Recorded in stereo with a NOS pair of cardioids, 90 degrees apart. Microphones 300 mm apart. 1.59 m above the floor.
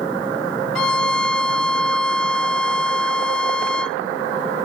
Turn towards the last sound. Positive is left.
turn(degrees=5)